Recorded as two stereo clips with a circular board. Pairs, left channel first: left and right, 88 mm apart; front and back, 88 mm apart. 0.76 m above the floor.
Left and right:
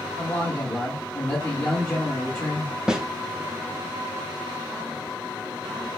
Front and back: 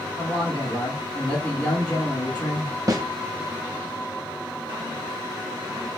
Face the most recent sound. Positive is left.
turn(degrees=-165)